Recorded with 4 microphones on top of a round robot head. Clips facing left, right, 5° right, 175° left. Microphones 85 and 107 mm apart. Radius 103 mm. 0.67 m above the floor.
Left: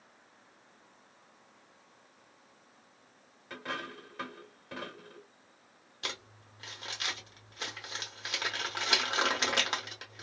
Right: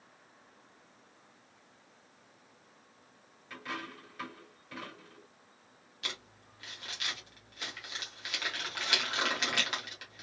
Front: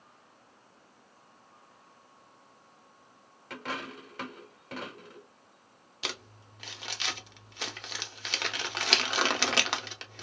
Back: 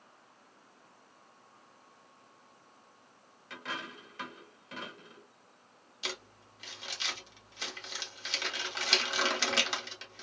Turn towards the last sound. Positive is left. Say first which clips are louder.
# left 2 dB, front 2 dB
turn(degrees=25)